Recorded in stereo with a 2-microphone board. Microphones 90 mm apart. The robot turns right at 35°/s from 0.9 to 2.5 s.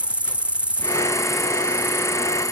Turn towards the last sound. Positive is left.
turn(degrees=40)